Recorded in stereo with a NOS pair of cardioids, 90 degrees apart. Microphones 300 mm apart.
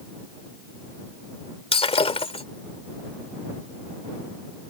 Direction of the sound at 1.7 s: 20° left.